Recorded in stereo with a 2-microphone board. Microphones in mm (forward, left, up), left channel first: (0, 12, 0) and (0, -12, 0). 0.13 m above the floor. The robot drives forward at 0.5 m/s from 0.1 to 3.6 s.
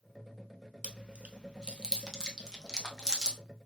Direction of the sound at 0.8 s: 50° right (ahead or behind).